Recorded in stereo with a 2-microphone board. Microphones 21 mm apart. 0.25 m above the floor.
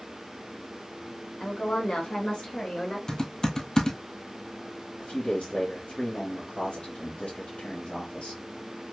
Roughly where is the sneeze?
I don't hear a sneeze.